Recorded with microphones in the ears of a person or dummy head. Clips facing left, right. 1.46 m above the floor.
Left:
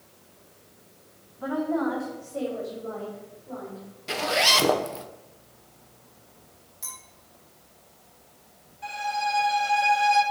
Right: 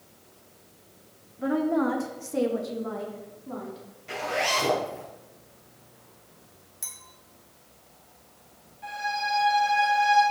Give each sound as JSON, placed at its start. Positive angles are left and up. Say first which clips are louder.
{"t": 1.4, "sound": "a woman speaking", "louder": "right 2 dB", "side_deg": -20, "distance_m": 1.7}
{"t": 4.1, "sound": "a zipper", "louder": "left 2 dB", "side_deg": 50, "distance_m": 0.7}
{"t": 6.8, "sound": "a clink", "louder": "left 8 dB", "side_deg": -10, "distance_m": 2.5}
{"t": 8.8, "sound": "a violin", "louder": "left 2 dB", "side_deg": 60, "distance_m": 3.0}